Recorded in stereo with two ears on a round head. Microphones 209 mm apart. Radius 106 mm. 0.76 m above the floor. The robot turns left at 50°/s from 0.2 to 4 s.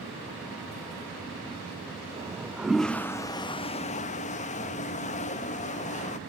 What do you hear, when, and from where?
2.2 s a toilet flushing: 150° right, 0.5 m; by 6.2 s 115° left, 0.5 m